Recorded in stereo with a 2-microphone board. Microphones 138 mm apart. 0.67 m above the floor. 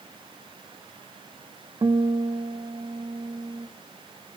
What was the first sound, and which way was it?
A guitar, 35° right (ahead or behind).